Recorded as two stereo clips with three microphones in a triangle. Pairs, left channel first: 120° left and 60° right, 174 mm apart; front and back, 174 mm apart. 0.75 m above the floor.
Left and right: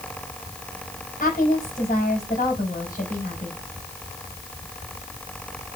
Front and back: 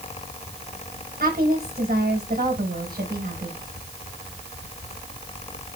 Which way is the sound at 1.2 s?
150° left.